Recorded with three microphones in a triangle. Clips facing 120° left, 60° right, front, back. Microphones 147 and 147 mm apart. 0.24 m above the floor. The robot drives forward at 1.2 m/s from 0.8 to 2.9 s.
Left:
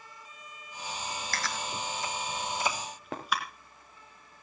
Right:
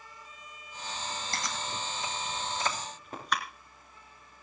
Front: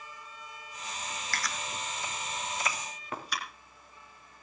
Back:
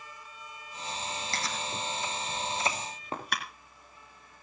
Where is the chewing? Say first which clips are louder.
Left 1 dB, back 1 dB; 120° right, 1.8 m; by 3.4 s 155° right, 3 m.